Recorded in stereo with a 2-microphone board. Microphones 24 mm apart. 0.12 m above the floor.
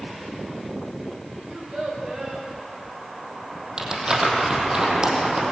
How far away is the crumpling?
About 4.5 m.